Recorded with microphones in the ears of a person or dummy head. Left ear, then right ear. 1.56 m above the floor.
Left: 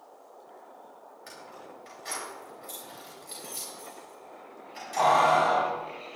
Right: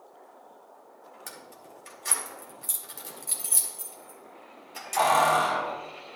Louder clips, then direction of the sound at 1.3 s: Left 2 dB; 25° right (ahead or behind).